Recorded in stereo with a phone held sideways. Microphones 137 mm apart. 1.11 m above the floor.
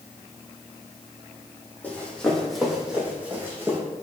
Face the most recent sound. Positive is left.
turn(degrees=-20)  # may be behind; listen again after turning